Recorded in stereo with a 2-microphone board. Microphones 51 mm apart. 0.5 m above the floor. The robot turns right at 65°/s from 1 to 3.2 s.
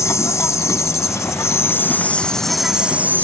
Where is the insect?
80° left; by 3.2 s 135° right.